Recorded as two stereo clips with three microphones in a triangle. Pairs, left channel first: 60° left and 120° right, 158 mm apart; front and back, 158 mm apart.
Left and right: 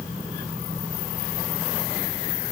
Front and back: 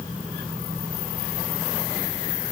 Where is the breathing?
No breathing in this recording.